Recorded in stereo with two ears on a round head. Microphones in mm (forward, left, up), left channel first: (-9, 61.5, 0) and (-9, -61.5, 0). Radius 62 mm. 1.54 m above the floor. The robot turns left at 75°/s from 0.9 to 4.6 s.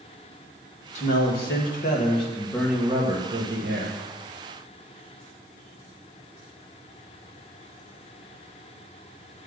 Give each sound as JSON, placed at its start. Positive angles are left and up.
{"t": 0.9, "sound": "a man speaking", "azimuth_deg": 125, "distance_m": 2.0}